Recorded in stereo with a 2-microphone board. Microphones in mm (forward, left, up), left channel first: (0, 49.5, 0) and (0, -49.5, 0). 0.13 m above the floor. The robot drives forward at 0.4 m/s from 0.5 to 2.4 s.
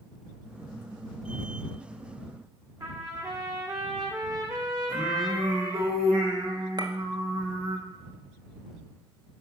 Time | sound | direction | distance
2.8 | a trumpet | 40° right (ahead or behind) | 2.5 m
4.9 | singing | 75° right (ahead or behind) | 5.5 m
6.8 | a clink | 50° right (ahead or behind) | 1.3 m